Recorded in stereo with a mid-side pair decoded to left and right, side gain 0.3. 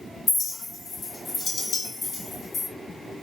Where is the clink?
70° left, 1.8 m.